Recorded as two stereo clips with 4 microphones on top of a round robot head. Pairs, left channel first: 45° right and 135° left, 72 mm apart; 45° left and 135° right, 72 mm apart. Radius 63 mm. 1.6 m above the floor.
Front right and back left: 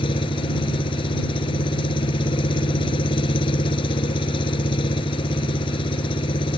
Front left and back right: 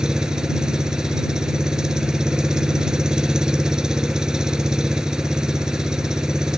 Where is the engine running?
55° right.